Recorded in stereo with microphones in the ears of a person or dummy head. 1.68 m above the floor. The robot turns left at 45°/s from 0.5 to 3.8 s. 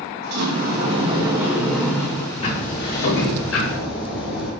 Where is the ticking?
140° left, 5.5 m; by 4.5 s 75° left, 5.5 m.